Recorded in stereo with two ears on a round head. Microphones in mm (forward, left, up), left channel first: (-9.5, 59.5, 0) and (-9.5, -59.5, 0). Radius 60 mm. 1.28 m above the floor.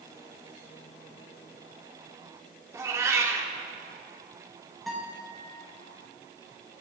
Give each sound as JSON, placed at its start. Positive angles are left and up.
{"t": 2.7, "sound": "a cat meowing", "side_deg": -25, "distance_m": 1.1}
{"t": 4.9, "sound": "a guitar", "side_deg": 0, "distance_m": 2.0}